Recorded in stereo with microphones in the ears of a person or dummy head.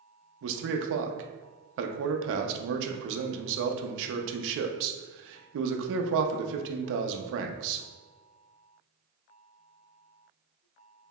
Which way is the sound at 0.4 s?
70° right (ahead or behind).